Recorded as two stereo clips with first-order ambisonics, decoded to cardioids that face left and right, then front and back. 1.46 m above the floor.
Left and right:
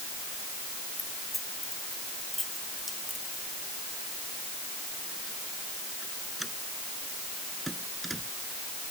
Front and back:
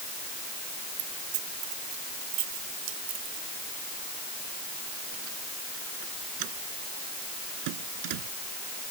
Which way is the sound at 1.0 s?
170° left.